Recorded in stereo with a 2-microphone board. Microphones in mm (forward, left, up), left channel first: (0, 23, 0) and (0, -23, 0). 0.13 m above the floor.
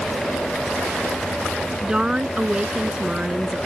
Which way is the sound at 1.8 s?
15° right (ahead or behind).